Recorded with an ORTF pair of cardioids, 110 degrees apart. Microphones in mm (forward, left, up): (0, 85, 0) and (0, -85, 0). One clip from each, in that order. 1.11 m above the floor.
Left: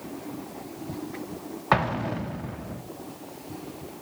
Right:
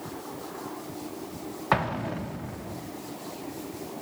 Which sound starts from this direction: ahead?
An explosion, at 1.7 s.